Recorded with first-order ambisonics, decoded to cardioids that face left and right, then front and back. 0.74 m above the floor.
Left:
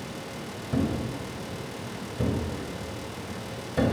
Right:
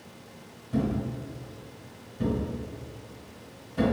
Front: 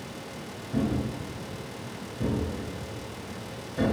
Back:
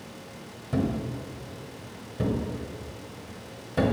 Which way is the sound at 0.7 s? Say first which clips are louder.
Left 1 dB, back 1 dB; 135° left.